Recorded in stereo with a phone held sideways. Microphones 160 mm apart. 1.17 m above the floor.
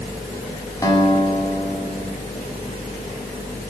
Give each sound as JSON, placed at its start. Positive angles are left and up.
{"t": 0.8, "sound": "a guitar", "side_deg": 20, "distance_m": 8.5}